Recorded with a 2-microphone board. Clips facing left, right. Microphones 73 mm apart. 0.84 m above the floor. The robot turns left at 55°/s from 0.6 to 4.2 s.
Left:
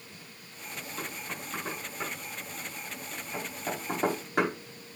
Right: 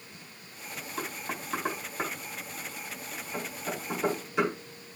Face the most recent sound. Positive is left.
turn(degrees=50)  # may be behind; listen again after turning